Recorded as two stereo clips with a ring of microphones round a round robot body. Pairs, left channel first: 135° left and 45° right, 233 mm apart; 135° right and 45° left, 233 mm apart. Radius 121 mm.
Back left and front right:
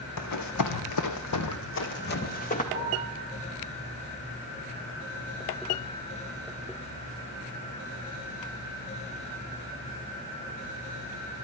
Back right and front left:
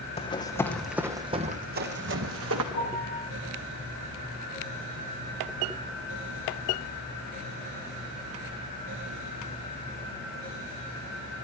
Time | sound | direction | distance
0.2 | running footsteps | 160° left | 1.5 m
2.7 | a piano | 175° right | 8.5 m